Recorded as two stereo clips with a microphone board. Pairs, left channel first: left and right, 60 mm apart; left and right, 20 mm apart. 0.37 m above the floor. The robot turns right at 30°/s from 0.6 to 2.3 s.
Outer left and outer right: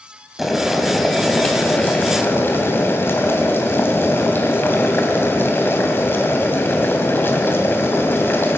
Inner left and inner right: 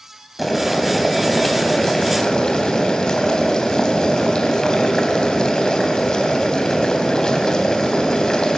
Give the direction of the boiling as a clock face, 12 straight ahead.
12 o'clock.